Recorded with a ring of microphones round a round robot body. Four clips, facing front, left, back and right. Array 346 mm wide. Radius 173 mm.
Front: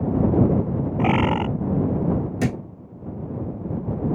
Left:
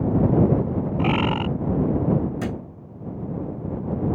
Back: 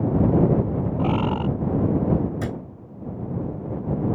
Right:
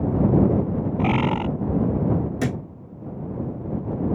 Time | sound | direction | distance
1.0 | a bird | 10° left | ?
2.4 | a thud | 40° right | ?